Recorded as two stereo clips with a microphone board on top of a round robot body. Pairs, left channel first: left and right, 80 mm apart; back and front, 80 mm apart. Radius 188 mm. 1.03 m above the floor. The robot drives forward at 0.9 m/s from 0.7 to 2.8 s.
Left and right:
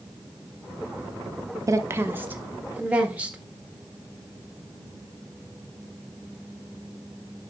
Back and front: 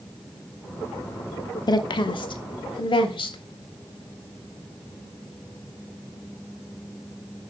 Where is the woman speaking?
140° right, 0.7 m; by 3.4 s 165° right, 1.6 m.